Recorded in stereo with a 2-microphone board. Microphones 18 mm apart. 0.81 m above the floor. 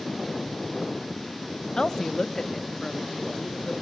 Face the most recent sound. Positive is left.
turn(degrees=5)  # may be behind; listen again after turning